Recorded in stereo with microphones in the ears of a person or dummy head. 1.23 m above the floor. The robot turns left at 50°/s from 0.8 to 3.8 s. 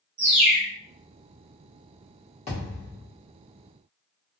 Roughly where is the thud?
Behind left.